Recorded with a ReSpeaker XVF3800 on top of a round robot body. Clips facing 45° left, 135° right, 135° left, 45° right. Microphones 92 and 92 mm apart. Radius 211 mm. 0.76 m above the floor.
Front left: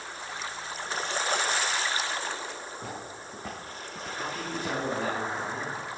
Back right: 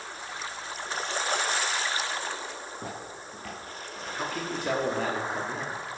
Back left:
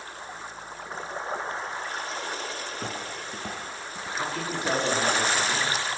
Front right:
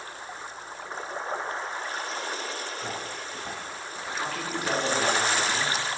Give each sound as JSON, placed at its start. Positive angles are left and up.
{"t": 2.7, "sound": "footsteps", "azimuth_deg": 160, "distance_m": 1.3}
{"t": 4.1, "sound": "a man speaking", "azimuth_deg": -160, "distance_m": 1.9}